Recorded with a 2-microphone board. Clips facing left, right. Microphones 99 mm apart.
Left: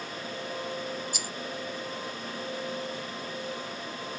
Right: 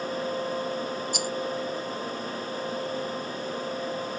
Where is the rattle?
65° right (ahead or behind).